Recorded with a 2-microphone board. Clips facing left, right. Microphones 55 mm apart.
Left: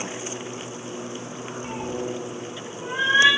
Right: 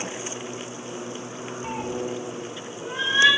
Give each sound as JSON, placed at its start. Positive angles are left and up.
{"t": 1.6, "sound": "a cat meowing", "side_deg": -20, "distance_m": 0.8}